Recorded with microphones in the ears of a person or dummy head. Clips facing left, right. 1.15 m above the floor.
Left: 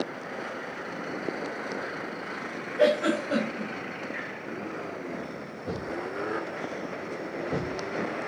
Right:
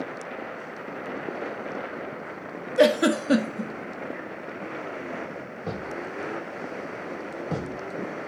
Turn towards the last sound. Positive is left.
turn(degrees=-60)  # may be behind; listen again after turning